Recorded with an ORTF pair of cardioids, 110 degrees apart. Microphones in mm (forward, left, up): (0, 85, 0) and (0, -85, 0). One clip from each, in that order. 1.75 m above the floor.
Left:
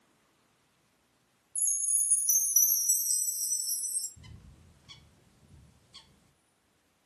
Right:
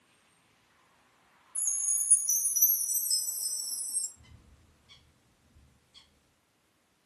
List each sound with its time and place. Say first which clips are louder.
1.6 s a chime: even; 15° left, 1.9 m
4.2 s a bird: left 4 dB; 50° left, 0.7 m